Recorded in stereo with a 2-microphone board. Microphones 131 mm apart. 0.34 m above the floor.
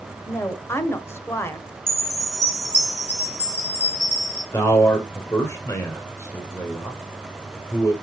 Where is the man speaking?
20° left (ahead or behind), 1.6 m.